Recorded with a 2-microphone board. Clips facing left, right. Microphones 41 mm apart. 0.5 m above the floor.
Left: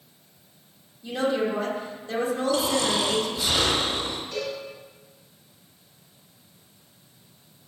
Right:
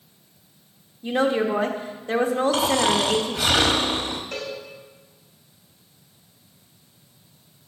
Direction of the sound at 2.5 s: 85° right.